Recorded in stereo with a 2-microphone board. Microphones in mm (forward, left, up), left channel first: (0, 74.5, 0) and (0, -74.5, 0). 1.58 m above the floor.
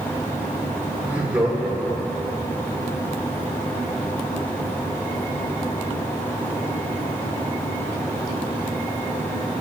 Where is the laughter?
10° right (ahead or behind), 5.5 m; by 2.5 s centre (ahead or behind), 6.5 m.